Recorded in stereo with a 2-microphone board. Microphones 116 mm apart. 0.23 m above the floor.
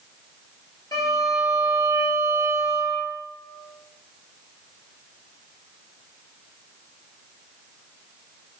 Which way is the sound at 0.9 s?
30° left (ahead or behind).